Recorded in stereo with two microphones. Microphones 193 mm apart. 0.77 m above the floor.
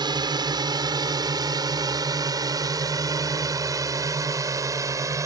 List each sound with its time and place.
0.0 s a drone: 20° right (ahead or behind); by 5.3 s 15° right (ahead or behind)